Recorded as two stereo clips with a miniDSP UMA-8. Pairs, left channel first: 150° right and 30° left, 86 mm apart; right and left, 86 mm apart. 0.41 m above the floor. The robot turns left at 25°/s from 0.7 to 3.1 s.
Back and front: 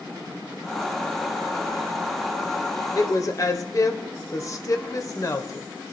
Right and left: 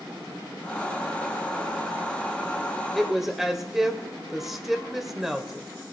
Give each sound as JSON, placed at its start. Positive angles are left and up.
{"t": 3.0, "sound": "a woman speaking", "azimuth_deg": 180, "distance_m": 1.2}